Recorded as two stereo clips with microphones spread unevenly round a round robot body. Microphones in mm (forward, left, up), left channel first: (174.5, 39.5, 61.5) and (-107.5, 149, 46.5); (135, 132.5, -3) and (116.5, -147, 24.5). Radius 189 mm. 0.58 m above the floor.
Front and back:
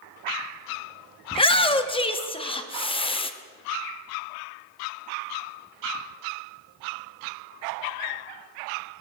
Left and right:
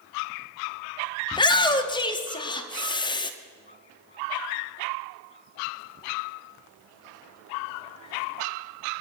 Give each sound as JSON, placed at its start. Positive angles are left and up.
{"t": 1.3, "sound": "a shout", "azimuth_deg": 40, "distance_m": 1.0}